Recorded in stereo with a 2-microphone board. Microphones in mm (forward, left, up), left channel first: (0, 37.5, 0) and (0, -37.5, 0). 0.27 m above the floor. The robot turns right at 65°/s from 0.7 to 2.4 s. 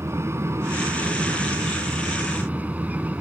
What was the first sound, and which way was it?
An aircraft, 135° right.